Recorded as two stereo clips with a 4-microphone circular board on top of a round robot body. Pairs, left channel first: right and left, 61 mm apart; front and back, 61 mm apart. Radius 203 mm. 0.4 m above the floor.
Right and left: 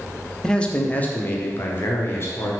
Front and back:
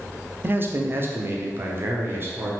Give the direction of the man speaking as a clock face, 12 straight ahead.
5 o'clock.